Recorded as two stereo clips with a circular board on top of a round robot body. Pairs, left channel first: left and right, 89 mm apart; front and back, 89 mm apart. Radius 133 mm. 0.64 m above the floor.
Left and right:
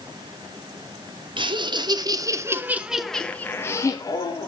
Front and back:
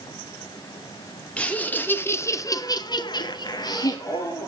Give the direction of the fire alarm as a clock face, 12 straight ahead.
I don't hear a fire alarm.